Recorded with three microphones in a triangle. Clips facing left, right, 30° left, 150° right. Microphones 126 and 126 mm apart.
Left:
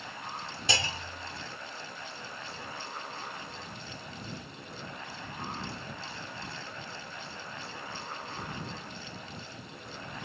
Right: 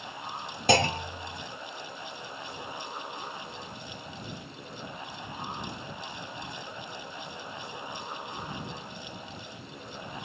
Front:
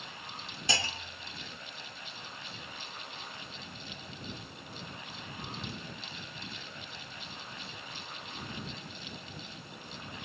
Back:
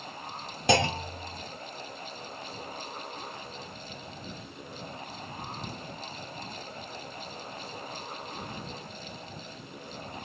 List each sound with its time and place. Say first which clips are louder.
0.7 s a clunk: right 11 dB, back 13 dB; 125° right